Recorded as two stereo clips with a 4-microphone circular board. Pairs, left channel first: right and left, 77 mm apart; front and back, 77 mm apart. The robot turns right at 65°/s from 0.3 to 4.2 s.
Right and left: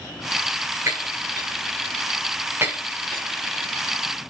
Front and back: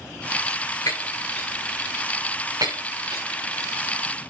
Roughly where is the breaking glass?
Ahead left.